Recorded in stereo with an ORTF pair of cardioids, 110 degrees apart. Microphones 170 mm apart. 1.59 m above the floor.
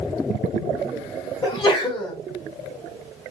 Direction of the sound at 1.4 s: 30° left.